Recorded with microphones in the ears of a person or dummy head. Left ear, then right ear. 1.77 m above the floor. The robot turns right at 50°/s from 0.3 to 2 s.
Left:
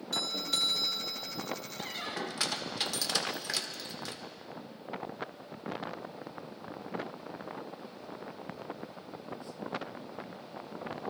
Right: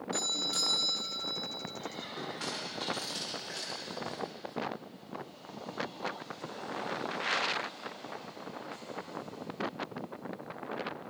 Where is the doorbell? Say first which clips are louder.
Left 1 dB; 135° left, 1.7 m; by 1.3 s 175° right, 1.7 m.